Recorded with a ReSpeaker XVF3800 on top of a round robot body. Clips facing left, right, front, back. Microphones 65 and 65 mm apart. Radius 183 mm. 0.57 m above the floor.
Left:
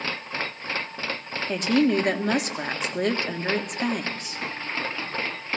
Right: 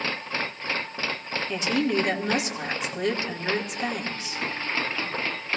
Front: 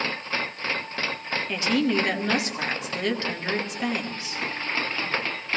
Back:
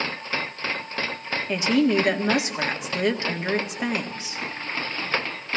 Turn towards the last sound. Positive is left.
turn(degrees=110)